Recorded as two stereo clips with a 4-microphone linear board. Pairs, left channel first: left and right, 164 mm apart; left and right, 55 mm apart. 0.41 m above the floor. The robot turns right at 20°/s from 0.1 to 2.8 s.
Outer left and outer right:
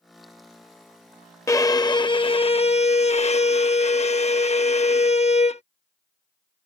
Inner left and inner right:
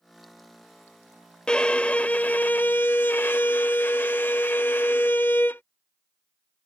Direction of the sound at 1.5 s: 20° left (ahead or behind).